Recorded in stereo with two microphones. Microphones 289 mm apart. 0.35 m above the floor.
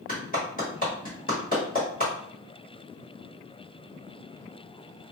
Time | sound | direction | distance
0.1 | a clap | 30° left (ahead or behind) | 1.4 m